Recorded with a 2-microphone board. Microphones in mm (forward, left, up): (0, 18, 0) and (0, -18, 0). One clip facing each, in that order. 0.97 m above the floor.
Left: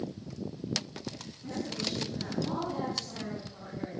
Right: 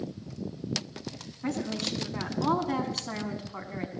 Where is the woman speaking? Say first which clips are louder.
Right 4 dB; 65° right (ahead or behind), 8.5 m; by 3.9 s 55° right (ahead or behind), 7.5 m.